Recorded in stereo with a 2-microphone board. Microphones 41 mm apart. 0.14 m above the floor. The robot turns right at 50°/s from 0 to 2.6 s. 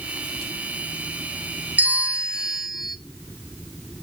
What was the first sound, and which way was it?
A bell, 50° right.